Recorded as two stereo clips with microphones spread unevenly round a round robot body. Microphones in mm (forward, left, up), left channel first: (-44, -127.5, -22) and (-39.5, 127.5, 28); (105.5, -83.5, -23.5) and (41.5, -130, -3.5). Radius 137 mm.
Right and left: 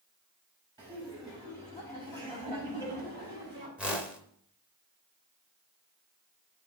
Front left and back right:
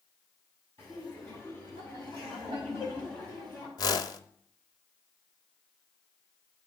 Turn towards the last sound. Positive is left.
turn(degrees=20)